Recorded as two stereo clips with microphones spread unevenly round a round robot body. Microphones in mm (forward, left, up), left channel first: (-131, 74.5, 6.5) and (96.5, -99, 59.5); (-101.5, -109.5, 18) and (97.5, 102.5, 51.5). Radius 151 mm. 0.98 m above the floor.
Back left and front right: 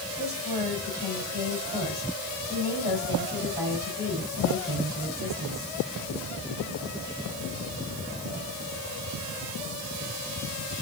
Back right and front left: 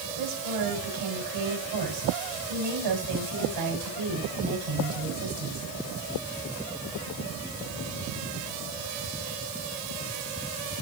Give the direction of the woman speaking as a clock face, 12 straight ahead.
11 o'clock.